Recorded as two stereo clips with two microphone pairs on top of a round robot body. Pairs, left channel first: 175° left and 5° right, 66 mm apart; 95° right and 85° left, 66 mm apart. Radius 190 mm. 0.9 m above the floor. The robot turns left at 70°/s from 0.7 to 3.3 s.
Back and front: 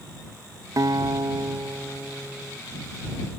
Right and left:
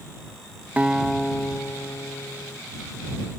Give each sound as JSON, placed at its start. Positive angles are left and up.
{"t": 0.8, "sound": "a guitar", "azimuth_deg": 20}